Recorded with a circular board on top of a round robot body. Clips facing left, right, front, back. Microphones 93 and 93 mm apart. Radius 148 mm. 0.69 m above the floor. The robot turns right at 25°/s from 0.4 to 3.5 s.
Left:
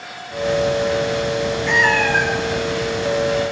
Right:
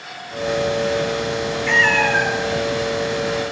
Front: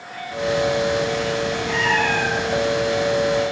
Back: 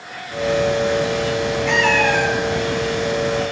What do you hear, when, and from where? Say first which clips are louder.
1.7 s a cat meowing: right 1 dB, back 5 dB; 165° left, 5.5 m; by 2.4 s 175° right, 5.5 m